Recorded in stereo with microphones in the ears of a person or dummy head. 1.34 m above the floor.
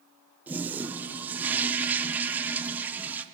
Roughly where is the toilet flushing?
Centre.